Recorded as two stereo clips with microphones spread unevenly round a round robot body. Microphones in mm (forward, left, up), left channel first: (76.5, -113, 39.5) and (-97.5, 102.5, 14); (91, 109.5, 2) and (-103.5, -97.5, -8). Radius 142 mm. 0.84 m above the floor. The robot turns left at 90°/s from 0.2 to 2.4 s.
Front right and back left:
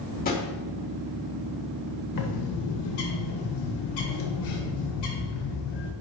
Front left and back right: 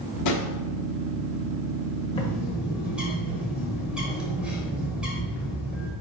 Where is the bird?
25° right, 1.5 m; by 5.9 s 45° right, 1.5 m.